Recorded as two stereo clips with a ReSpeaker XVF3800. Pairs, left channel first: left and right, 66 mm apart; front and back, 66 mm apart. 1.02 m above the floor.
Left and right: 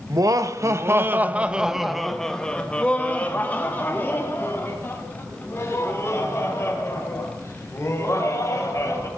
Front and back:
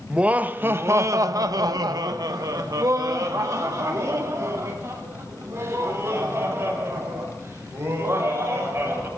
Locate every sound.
0.1 s laughter: 105° right, 1.0 m; by 9.1 s 135° left, 5 m